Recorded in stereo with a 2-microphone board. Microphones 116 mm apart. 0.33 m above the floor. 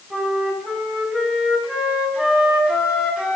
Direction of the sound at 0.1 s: 10° right (ahead or behind).